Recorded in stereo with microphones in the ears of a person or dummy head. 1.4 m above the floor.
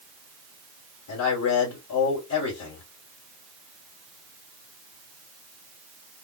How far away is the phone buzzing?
I don't hear a phone buzzing.